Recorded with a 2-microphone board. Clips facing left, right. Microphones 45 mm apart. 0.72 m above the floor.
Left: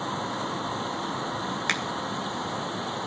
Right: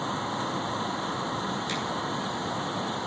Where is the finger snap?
75° left (ahead or behind), 2.5 m.